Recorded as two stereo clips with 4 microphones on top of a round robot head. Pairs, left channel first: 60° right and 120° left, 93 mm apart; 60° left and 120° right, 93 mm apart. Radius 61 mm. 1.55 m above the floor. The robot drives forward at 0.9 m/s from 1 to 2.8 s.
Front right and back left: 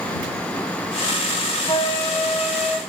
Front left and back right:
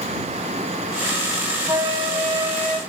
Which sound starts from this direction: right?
A flute, at 1.7 s.